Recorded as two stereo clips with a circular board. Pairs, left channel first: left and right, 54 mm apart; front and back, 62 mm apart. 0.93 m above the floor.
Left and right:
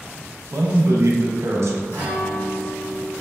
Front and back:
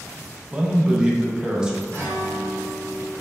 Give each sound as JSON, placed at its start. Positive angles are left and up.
{"t": 0.5, "sound": "a man speaking", "azimuth_deg": -105, "distance_m": 0.5}
{"t": 1.9, "sound": "a guitar", "azimuth_deg": 65, "distance_m": 1.4}